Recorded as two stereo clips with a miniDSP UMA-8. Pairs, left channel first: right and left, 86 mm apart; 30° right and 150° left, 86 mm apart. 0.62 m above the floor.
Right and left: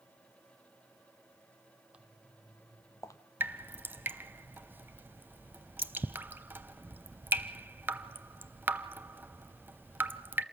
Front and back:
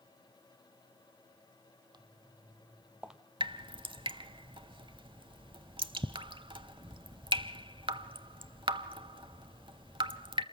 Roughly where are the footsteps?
Behind.